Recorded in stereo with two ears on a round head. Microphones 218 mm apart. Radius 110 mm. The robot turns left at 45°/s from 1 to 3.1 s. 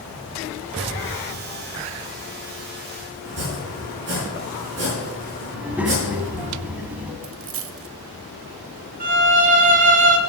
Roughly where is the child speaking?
Centre.